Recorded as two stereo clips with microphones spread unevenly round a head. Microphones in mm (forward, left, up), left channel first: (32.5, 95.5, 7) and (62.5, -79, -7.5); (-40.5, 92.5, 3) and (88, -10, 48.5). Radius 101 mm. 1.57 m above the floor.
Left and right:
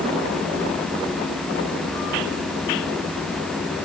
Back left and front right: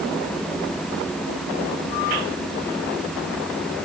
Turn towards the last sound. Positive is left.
No sound to turn to.